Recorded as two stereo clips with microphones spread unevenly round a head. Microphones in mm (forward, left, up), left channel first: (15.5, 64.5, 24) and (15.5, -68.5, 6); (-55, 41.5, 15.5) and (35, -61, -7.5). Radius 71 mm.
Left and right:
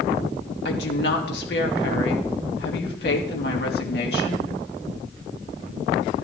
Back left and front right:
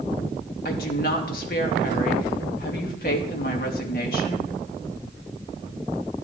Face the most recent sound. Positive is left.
turn(degrees=105)